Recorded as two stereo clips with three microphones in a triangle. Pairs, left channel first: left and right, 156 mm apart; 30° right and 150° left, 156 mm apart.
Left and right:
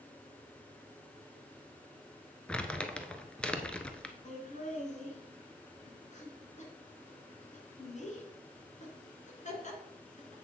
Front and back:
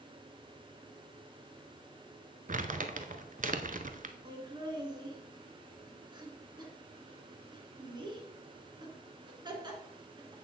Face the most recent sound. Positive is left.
turn(degrees=100)